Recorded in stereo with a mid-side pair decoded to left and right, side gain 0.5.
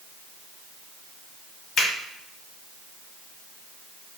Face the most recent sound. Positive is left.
turn(degrees=60)